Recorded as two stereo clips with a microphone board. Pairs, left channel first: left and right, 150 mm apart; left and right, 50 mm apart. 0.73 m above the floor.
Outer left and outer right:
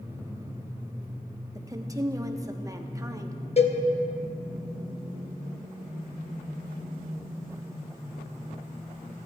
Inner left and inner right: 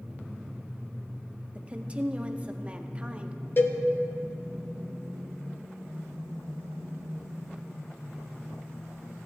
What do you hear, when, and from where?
1.6 s a woman speaking: 20° right (ahead or behind), 0.9 m
3.6 s a cowbell: 45° left (ahead or behind), 0.9 m